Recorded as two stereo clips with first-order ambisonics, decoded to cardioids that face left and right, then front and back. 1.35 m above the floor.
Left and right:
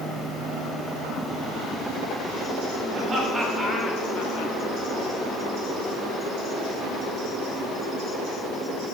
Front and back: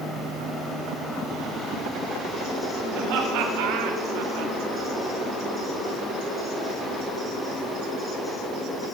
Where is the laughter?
155° right, 1.0 m; by 4.5 s 130° left, 0.8 m.